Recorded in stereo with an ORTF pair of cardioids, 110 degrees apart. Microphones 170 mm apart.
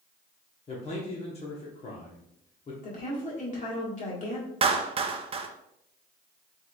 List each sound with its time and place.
0.7 s a man speaking: 35° left, 1.2 m
2.8 s a woman speaking: 45° left, 1.7 m
4.6 s a clap: 35° right, 0.6 m